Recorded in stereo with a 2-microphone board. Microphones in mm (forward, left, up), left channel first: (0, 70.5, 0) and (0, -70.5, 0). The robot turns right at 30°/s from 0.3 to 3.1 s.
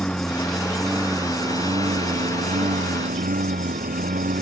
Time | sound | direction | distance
0.0 | a lawn mower | 175° left | ?